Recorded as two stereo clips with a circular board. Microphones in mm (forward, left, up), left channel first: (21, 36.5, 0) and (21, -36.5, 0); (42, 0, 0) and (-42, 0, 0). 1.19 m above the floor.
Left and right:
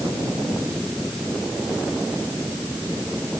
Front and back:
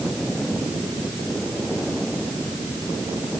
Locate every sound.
Only background noise.